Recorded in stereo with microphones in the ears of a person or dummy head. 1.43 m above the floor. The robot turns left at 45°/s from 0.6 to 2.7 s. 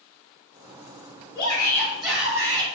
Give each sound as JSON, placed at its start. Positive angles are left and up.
{"t": 1.4, "sound": "a shout", "azimuth_deg": 35, "distance_m": 3.5}